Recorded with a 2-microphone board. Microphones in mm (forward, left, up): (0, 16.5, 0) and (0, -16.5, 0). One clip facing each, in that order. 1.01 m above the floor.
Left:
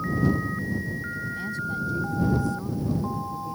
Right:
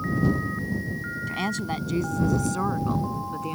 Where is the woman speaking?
75° right (ahead or behind); by 3.5 s 70° right (ahead or behind).